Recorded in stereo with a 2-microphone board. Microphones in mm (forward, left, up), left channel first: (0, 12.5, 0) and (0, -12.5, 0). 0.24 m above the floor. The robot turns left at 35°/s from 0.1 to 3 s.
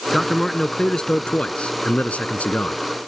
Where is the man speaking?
Straight behind; by 2.8 s 85° left.